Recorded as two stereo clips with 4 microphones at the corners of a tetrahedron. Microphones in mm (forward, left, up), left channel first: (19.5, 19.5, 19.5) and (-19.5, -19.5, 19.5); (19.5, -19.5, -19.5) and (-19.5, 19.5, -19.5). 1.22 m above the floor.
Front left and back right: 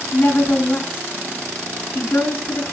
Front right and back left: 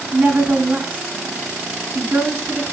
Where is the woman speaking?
90° left, 3 m.